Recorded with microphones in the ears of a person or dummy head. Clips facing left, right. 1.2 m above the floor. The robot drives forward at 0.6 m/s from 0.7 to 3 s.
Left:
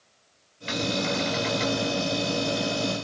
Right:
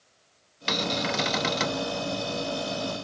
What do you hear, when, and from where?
0.7 s a cupboard door: 60° right (ahead or behind), 0.8 m; by 1.8 s 50° right (ahead or behind), 0.9 m